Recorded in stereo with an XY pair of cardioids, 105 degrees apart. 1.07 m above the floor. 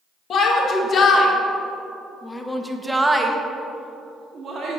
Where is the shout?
60° left, 1.5 m; by 4.8 s 60° right, 1.3 m.